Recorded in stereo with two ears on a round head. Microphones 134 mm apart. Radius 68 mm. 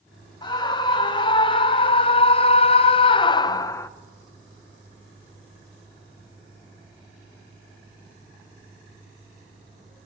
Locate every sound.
0.4 s a scream: 30° left (ahead or behind), 1.6 m; by 3.9 s 20° left (ahead or behind), 0.6 m